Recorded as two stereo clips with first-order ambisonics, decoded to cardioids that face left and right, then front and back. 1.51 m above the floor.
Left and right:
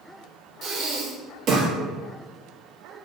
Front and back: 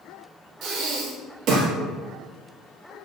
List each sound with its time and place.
0.6 s breathing: 140° right, 0.7 m